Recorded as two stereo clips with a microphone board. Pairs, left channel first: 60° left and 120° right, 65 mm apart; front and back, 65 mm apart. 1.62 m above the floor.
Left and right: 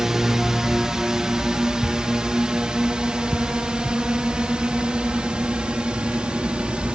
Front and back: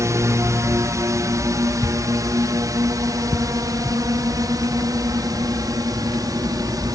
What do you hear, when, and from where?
0.0 s a drone: 160° left; by 7.0 s 165° left